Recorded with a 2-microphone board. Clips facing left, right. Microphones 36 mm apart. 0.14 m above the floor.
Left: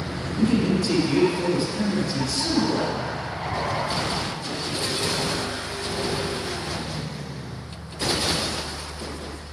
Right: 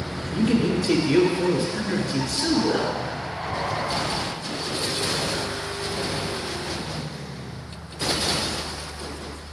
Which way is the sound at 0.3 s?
45° right (ahead or behind).